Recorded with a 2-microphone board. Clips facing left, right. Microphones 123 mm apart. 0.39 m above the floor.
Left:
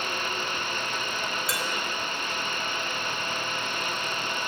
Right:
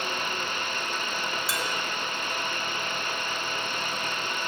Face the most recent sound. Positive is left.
turn(degrees=0)  # may be behind; listen again after turning